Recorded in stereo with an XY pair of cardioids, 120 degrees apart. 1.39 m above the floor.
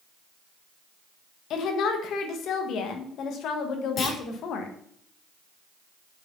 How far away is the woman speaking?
About 1.9 m.